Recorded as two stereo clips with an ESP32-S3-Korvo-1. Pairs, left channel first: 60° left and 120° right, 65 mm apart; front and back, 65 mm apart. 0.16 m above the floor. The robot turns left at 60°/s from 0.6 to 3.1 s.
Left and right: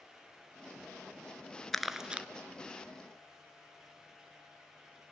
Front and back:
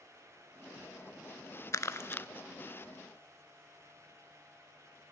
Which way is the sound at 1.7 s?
25° right.